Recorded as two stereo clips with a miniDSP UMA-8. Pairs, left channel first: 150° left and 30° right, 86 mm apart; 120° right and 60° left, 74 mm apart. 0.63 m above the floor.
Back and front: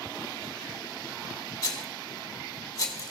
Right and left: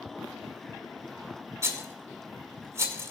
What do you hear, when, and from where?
1.6 s a rattle: 105° left, 1.8 m